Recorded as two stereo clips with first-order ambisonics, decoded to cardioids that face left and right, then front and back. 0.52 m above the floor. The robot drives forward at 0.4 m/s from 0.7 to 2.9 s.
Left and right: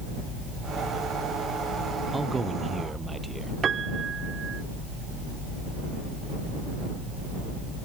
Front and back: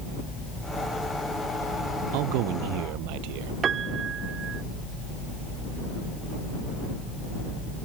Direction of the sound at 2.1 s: 170° right.